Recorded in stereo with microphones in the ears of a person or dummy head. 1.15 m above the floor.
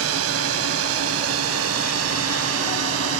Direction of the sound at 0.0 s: 80° right.